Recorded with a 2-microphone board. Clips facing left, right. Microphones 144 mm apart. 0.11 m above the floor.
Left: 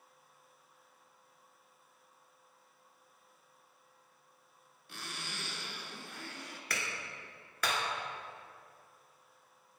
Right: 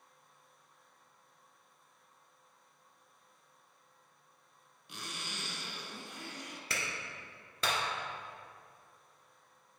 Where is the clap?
25° right (ahead or behind), 1.5 m.